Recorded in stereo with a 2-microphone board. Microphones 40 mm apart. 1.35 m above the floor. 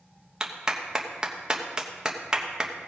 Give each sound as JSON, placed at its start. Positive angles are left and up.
{"t": 0.4, "sound": "a clap", "side_deg": -15, "distance_m": 1.1}